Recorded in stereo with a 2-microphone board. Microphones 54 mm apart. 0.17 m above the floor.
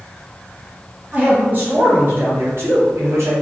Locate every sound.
1.1 s a man speaking: 30° right (ahead or behind), 1.5 m; by 3.3 s 60° right (ahead or behind), 2 m